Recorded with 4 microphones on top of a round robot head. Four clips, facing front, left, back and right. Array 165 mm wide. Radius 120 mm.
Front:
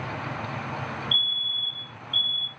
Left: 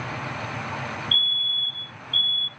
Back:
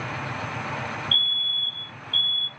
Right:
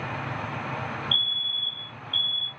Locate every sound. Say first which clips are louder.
1.1 s a fire alarm: left 3 dB, back 2 dB; 165° left, 2.5 m